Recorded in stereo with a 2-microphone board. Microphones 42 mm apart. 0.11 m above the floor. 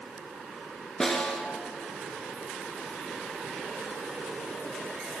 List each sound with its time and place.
1.0 s a snare drum: 10° left (ahead or behind), 1.4 m